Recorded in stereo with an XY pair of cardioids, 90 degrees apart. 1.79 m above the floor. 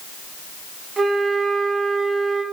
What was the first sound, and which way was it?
A flute, 40° right.